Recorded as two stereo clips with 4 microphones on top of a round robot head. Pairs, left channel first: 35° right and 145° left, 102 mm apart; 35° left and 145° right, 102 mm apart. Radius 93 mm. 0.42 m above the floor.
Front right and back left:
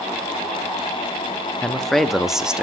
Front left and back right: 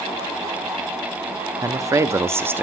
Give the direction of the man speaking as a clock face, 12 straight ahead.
4 o'clock.